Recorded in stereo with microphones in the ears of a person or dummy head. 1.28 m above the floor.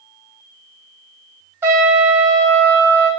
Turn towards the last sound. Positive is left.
turn(degrees=-10)  # may be behind; listen again after turning